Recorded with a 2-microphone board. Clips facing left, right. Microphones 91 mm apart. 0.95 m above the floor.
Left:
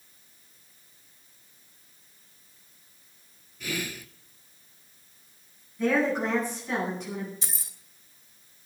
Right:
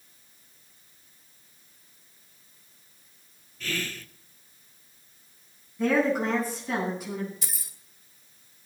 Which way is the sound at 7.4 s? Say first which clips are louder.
Left 1 dB; 25° left (ahead or behind).